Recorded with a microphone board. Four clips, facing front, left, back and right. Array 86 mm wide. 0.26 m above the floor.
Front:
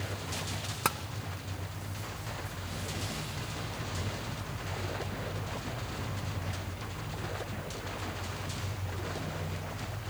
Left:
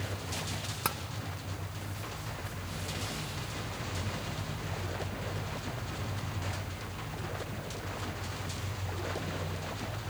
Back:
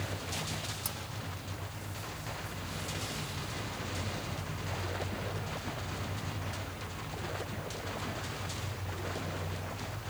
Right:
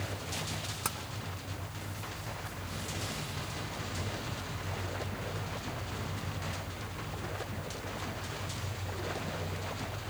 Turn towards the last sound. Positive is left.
turn(degrees=15)